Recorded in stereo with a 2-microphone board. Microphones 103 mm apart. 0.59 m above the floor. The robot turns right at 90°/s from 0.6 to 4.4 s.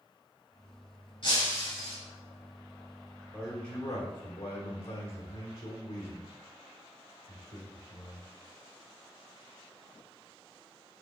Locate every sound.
1.2 s breaking glass: 125° left, 1.8 m; by 2.0 s 165° right, 1.8 m
3.3 s a man speaking: 15° right, 1.2 m; by 8.3 s 80° left, 1.2 m